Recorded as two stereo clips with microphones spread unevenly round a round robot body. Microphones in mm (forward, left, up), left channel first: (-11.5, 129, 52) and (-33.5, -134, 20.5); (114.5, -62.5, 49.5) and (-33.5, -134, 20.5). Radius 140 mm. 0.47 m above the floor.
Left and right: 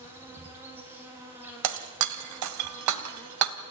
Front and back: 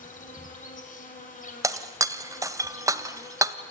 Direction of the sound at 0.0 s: 15° right.